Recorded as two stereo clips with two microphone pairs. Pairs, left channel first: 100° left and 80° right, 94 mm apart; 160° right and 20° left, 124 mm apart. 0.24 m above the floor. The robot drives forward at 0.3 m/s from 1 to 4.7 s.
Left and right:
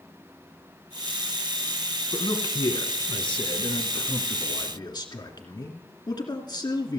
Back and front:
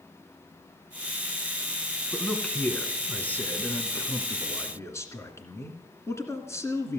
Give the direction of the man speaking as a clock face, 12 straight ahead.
8 o'clock.